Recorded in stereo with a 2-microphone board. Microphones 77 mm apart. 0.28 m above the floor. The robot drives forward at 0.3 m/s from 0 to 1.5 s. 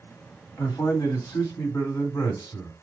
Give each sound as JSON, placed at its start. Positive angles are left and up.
{"t": 0.6, "sound": "a man speaking", "side_deg": 50, "distance_m": 1.3}